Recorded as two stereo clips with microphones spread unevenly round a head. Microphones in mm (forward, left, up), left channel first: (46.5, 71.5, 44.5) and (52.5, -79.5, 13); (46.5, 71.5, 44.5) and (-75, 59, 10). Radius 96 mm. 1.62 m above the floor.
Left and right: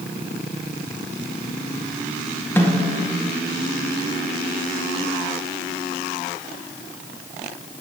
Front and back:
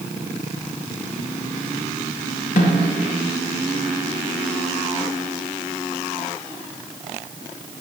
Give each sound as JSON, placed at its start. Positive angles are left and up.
{"t": 2.6, "sound": "a snare drum", "azimuth_deg": 15, "distance_m": 2.0}